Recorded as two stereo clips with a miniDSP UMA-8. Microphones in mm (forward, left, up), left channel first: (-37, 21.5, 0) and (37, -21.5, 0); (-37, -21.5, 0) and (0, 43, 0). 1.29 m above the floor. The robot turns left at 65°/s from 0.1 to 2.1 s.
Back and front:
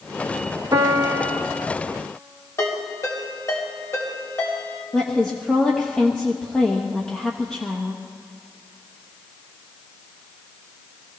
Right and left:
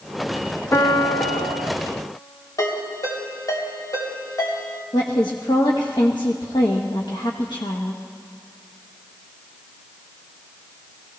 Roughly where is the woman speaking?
Behind right.